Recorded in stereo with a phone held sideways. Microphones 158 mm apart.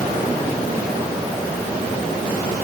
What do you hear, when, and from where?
Only background noise.